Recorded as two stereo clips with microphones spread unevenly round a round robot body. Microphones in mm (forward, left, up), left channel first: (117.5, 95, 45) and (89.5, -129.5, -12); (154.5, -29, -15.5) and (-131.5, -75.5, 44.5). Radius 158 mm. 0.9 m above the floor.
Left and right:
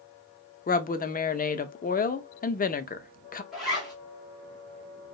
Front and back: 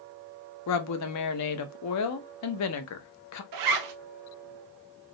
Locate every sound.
0.7 s a woman speaking: 20° left, 0.5 m
3.5 s a zipper: 175° right, 0.6 m